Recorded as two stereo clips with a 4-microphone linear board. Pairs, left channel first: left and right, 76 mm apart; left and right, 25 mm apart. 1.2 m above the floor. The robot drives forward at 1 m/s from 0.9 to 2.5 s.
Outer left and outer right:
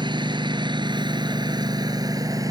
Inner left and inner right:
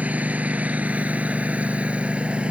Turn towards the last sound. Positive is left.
turn(degrees=-50)  # may be behind; listen again after turning